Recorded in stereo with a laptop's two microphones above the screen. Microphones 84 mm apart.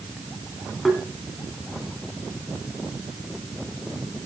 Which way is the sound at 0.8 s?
5° left (ahead or behind).